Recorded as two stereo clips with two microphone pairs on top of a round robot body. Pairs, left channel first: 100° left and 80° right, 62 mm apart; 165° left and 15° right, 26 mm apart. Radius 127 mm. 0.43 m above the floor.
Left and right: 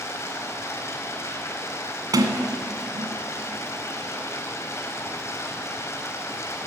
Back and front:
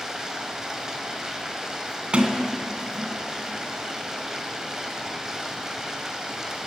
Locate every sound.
0.0 s running water: 55° left, 3 m
2.1 s a sliding door: 65° right, 2.5 m